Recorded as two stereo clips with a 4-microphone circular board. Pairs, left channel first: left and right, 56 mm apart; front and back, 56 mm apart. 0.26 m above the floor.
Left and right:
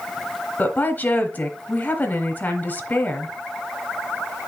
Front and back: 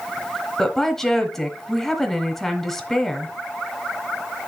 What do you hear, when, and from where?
0.6 s a woman speaking: 75° left, 1.2 m